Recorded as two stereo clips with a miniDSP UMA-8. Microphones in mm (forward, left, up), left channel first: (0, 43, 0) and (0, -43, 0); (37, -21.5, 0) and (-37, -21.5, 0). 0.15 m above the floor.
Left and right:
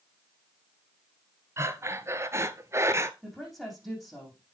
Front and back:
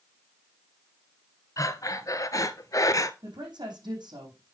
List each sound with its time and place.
1.6 s breathing: 35° right, 0.8 m
3.2 s a woman speaking: straight behind, 7 m